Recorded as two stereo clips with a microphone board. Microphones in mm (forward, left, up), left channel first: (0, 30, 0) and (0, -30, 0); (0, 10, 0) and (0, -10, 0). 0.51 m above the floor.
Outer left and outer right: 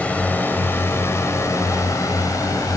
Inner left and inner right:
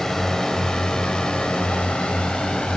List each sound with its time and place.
0.0 s a drone: 25° left (ahead or behind); by 2.8 s 65° left (ahead or behind)